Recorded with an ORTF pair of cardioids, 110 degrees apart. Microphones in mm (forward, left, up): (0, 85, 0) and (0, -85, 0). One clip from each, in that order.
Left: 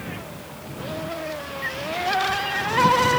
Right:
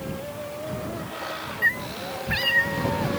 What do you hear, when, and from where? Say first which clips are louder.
1.6 s a cat meowing: right 2 dB; 50° right; by 3.1 s 55° right